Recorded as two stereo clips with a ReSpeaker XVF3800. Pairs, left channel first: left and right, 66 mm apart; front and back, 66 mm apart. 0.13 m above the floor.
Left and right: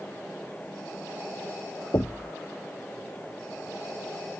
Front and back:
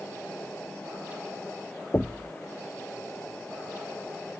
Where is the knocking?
55° left.